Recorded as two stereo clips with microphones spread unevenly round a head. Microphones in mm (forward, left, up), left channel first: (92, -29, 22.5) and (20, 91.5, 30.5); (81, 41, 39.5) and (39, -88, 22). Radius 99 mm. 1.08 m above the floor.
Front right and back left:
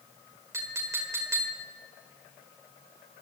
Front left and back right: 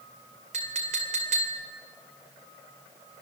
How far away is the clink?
About 2.5 m.